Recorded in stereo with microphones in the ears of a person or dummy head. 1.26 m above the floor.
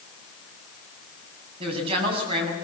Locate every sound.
1.6 s a woman speaking: 35° right (ahead or behind), 7.5 m